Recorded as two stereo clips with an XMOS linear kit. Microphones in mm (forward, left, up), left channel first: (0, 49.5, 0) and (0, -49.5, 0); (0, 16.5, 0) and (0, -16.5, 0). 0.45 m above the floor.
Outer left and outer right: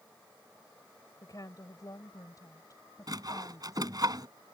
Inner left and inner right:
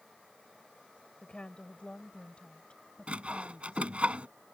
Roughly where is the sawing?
Right.